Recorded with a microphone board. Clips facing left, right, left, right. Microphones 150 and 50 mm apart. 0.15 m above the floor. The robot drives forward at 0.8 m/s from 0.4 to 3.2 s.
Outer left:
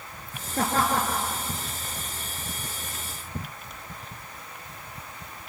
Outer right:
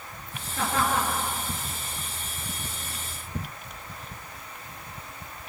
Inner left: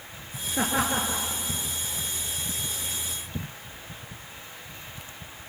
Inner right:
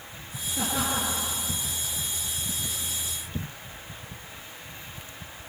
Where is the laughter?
45° left (ahead or behind), 3 m; by 1.2 s 40° left (ahead or behind), 3 m.